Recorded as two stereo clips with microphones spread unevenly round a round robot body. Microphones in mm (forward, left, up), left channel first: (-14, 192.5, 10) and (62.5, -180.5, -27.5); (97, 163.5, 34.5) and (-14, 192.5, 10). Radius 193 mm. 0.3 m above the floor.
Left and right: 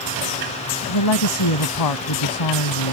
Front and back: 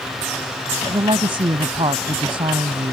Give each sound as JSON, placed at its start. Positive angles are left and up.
{"t": 0.9, "sound": "a woman speaking", "azimuth_deg": 135}